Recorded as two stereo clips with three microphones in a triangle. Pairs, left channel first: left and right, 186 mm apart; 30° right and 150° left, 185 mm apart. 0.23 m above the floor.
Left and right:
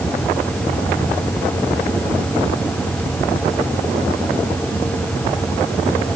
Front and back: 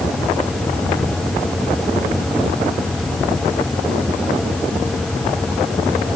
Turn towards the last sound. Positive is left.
No sound to turn to.